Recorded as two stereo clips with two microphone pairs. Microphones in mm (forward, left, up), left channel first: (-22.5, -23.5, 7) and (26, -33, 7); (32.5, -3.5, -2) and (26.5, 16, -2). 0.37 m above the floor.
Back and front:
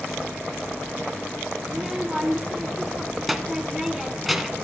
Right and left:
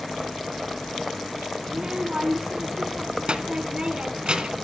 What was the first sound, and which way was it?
A child speaking, 75° left.